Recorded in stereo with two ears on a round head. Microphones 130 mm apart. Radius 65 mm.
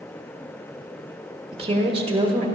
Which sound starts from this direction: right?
A woman speaking, at 1.5 s.